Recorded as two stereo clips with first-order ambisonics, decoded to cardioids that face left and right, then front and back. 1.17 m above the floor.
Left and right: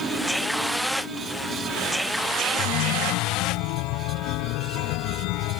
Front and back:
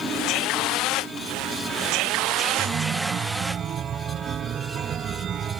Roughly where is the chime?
Behind left.